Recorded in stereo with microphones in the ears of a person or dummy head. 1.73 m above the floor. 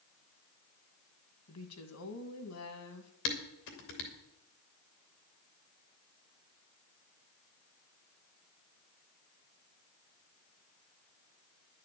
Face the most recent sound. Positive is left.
turn(degrees=65)  # may be behind; listen again after turning